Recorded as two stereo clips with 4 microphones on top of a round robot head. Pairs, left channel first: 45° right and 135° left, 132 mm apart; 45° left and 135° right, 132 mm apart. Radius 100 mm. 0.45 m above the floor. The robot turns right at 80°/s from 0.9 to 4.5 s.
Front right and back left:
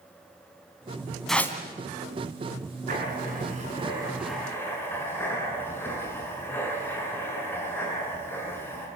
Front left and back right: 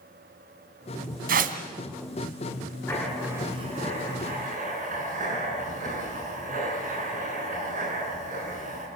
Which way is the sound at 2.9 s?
115° left.